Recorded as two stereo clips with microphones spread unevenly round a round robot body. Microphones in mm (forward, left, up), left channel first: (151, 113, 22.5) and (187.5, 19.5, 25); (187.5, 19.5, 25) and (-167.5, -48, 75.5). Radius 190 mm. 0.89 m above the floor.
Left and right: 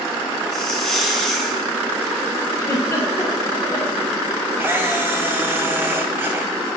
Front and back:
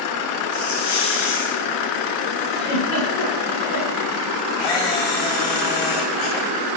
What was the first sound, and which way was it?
A hiss, 25° left.